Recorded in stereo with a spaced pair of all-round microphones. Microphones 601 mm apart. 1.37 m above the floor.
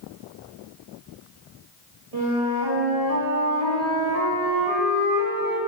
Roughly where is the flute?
Right.